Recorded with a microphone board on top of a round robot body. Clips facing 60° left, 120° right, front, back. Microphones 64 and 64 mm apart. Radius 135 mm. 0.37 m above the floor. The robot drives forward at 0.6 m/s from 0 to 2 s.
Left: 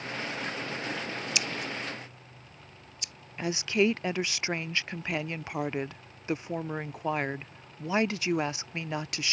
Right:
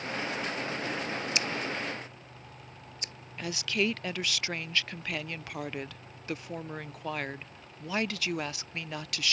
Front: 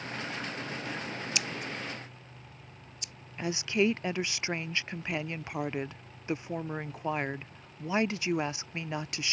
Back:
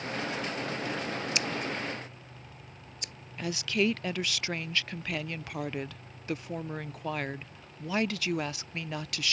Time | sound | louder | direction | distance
1.4 | scissors | right 1 dB, back 4 dB | 155° right | ?
3.4 | a woman speaking | left 4 dB, front 1 dB | 35° left | ?